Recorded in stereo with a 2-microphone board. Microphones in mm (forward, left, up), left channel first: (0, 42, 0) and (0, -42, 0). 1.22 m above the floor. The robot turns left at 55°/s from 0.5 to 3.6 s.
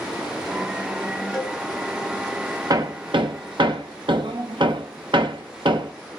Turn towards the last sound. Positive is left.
turn(degrees=-75)  # may be behind; listen again after turning